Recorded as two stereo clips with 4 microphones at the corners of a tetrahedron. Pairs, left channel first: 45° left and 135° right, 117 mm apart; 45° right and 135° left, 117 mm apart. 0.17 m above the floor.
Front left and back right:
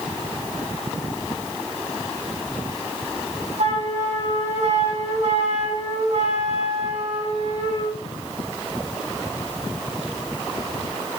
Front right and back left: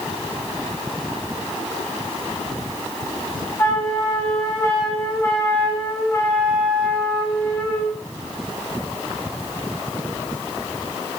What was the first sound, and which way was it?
A flute, 115° right.